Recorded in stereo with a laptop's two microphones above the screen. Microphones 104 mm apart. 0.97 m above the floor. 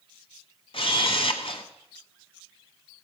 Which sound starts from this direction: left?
A camera shutter, at 0.7 s.